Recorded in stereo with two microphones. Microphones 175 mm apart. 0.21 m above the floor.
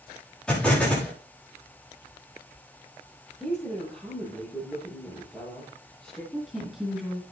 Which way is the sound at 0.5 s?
5° left (ahead or behind).